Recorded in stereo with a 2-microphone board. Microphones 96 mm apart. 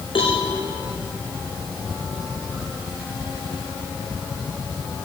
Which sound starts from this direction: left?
A cowbell, at 0.1 s.